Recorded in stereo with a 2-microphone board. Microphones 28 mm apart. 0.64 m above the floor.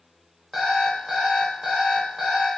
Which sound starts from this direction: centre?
An alarm clock, at 0.5 s.